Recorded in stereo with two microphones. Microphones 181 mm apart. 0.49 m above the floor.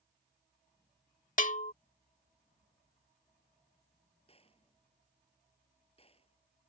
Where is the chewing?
I don't hear chewing.